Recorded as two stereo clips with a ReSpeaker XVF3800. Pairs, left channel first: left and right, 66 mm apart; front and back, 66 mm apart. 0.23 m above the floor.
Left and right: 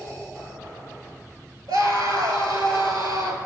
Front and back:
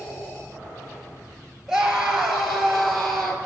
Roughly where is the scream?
Right.